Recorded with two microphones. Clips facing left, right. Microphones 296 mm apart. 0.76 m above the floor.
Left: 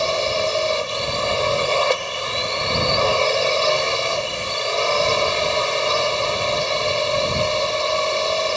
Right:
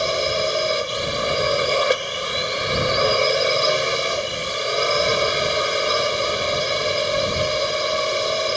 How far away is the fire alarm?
No fire alarm in this recording.